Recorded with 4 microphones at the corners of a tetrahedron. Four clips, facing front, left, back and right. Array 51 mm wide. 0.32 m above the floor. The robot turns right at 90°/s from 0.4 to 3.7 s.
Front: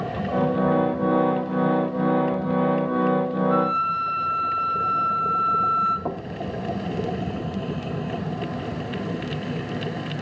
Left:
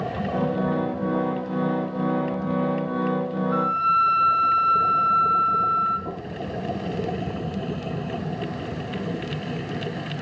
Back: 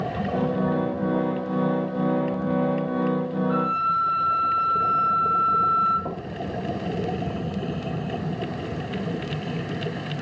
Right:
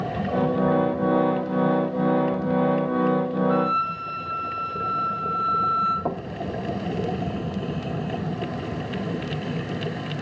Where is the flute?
125° right, 7.5 m; by 6.0 s 110° right, 7.5 m.